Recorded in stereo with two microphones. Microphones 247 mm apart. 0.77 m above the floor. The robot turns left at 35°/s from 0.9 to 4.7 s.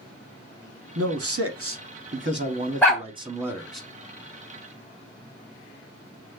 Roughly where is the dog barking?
Centre.